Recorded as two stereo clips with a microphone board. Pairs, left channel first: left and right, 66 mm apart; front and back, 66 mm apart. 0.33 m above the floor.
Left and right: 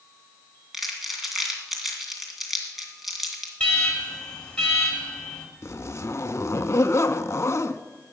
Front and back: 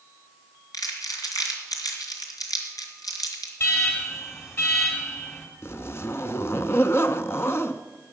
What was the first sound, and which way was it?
Crumpling, 5° right.